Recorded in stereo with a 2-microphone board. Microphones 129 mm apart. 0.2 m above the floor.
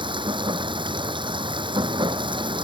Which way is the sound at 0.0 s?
40° right (ahead or behind).